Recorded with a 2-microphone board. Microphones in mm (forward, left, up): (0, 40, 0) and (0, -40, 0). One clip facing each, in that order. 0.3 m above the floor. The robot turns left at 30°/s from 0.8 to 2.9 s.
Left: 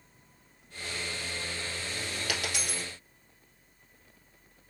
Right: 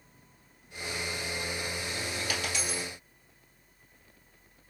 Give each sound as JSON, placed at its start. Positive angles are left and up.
{"t": 2.3, "sound": "a dropped coin", "side_deg": 85, "distance_m": 1.7}